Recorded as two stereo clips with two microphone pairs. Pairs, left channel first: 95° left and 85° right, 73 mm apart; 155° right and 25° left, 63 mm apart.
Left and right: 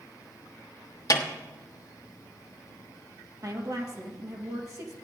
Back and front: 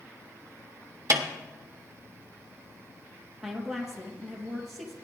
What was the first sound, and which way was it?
A snare drum, 60° left.